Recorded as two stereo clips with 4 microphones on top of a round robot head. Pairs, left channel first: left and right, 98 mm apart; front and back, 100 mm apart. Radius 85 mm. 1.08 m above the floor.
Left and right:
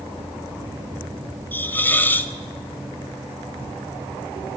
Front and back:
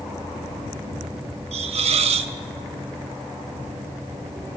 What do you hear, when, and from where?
1.5 s a hiss: 160° left, 0.6 m